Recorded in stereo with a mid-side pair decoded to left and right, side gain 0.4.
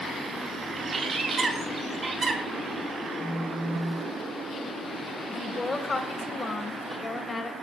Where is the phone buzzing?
65° right, 3.5 m.